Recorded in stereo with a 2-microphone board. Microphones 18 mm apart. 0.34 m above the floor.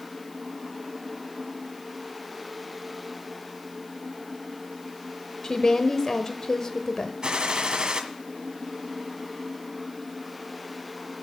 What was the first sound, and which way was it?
A woman speaking, 35° left (ahead or behind).